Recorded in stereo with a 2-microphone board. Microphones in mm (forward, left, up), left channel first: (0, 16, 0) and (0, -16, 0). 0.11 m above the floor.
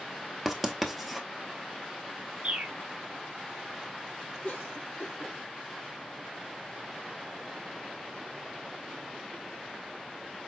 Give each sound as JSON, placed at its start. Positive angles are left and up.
{"t": 0.5, "sound": "writing", "side_deg": 0, "distance_m": 0.8}
{"t": 2.4, "sound": "a bird", "side_deg": -45, "distance_m": 0.6}
{"t": 4.4, "sound": "a cough", "side_deg": 65, "distance_m": 3.5}